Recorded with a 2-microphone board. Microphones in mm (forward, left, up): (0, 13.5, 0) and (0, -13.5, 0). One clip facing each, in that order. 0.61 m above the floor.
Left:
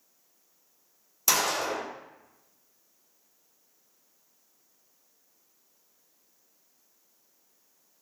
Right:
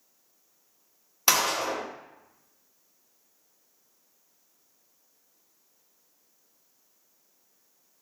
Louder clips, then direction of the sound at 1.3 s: Right 2 dB; 45° right (ahead or behind).